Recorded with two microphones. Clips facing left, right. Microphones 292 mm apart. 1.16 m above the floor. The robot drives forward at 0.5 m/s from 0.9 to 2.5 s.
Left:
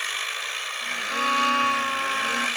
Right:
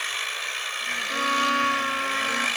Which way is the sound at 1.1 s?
20° right (ahead or behind).